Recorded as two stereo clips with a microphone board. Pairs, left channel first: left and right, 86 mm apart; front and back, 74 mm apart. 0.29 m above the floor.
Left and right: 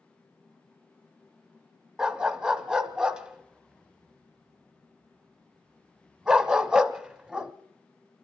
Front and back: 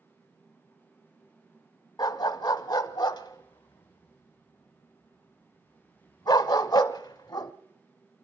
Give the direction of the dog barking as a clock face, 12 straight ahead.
12 o'clock.